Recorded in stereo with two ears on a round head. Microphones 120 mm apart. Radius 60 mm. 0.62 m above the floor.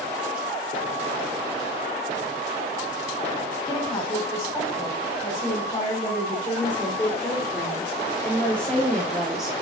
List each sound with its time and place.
3.6 s a woman speaking: 30° left (ahead or behind), 4 m; by 9.5 s 5° right (ahead or behind), 1.5 m